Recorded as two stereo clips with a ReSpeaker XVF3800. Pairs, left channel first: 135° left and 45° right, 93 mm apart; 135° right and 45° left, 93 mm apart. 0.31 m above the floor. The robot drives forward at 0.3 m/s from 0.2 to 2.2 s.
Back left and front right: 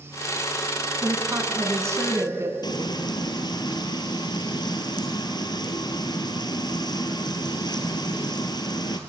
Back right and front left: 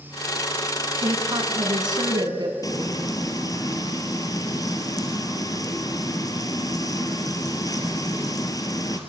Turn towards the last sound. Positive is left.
turn(degrees=175)